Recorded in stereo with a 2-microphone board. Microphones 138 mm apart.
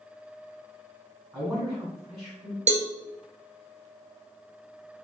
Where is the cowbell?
65° right (ahead or behind), 0.6 m.